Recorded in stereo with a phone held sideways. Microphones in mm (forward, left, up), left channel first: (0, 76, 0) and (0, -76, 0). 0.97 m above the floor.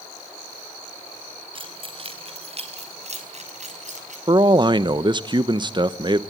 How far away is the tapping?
No tapping in this recording.